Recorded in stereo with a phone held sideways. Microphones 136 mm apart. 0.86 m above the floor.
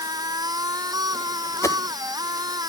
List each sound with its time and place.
0.0 s a machine running: 30° right (ahead or behind)
1.6 s a whoosh: 25° left (ahead or behind)